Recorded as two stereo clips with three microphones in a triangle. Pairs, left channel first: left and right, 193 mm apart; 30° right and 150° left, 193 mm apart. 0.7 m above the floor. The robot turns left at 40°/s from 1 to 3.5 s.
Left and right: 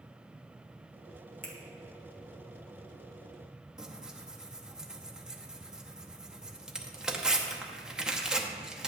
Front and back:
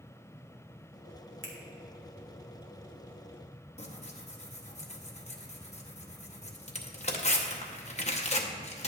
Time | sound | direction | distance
1.4 | a finger snap | 135° left | 1.4 m
3.8 | tearing paper | 5° right | 0.7 m